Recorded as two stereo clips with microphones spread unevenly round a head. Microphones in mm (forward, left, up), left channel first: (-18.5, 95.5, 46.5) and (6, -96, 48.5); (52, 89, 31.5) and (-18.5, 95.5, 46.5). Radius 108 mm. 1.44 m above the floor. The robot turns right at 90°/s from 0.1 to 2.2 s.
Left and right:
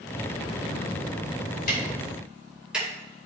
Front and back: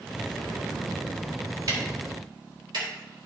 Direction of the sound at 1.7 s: 145° left.